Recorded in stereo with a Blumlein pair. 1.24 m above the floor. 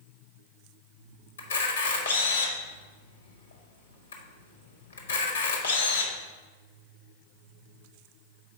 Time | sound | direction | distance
1.4 | a camera shutter | 70° left | 1.1 m